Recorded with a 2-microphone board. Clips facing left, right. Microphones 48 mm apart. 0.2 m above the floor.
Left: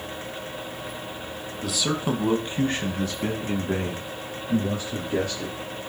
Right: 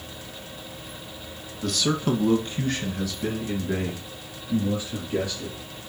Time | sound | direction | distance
1.6 | a man speaking | 5° left (ahead or behind) | 1.5 m